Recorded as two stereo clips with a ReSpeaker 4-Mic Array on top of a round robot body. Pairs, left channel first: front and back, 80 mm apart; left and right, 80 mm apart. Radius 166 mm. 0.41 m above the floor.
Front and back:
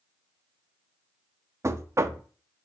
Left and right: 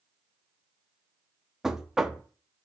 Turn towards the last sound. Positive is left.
turn(degrees=-170)